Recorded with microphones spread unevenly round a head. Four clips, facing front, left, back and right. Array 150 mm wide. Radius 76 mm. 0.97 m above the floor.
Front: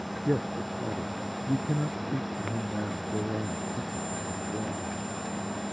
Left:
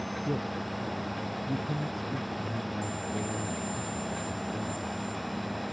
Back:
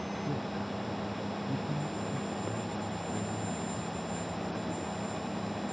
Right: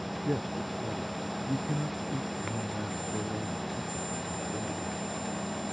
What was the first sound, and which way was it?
A man speaking, 10° right.